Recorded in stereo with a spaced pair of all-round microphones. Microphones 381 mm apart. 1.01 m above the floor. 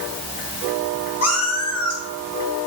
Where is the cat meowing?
40° left (ahead or behind), 3 m.